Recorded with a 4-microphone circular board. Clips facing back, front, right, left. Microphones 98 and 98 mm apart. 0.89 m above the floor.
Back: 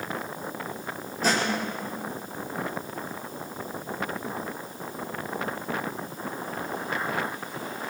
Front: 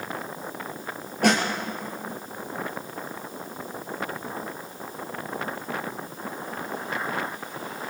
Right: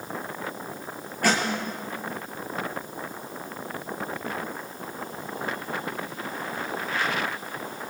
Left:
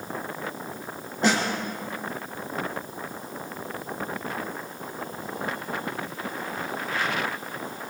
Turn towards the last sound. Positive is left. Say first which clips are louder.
# front 4 dB, left 1 dB
turn(degrees=25)